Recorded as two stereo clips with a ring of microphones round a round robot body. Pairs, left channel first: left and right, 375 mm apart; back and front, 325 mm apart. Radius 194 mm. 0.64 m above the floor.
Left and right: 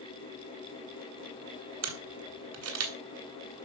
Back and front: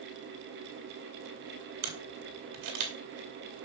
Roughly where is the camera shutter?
Ahead right.